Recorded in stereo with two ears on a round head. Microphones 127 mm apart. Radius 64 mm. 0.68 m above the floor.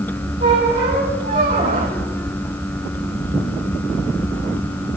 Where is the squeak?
55° right (ahead or behind), 6.5 m.